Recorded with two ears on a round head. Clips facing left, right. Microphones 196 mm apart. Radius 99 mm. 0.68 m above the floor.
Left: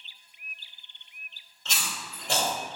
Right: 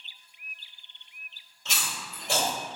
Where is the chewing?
10° right (ahead or behind), 1.4 m.